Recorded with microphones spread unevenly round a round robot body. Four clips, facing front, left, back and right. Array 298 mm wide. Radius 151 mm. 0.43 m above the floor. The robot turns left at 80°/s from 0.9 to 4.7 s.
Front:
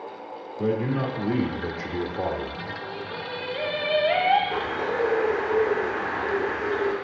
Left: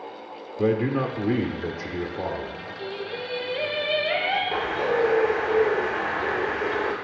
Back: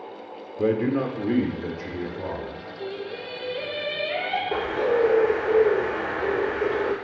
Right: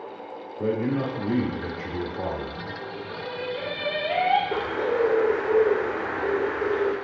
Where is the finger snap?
I don't hear a finger snap.